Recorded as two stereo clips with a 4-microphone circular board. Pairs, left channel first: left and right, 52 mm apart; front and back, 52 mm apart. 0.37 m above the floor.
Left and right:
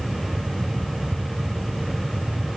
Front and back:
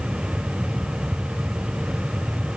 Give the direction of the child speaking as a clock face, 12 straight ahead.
I don't hear a child speaking.